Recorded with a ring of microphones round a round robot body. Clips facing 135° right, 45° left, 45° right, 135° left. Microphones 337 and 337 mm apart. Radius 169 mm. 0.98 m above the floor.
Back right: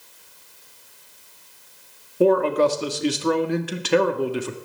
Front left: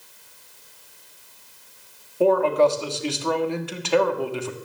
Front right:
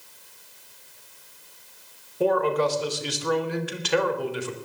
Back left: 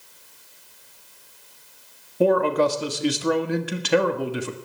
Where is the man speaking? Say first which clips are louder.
Back right 1 dB, back left 3 dB; 155° left, 1.6 m.